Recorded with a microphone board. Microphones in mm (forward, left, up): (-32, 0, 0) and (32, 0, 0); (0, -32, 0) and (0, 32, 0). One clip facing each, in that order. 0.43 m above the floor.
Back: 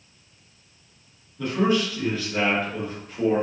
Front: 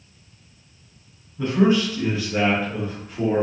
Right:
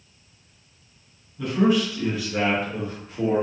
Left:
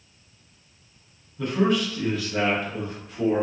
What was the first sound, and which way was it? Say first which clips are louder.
A man speaking: front 4 dB, right 2 dB; straight ahead.